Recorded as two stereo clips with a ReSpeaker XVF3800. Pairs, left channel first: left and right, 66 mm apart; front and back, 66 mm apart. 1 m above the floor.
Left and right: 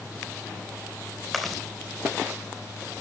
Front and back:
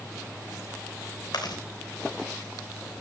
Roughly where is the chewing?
Ahead.